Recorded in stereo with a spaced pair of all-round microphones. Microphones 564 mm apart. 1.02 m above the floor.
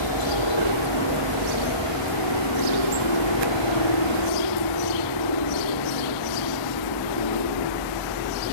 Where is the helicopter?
55° left (ahead or behind).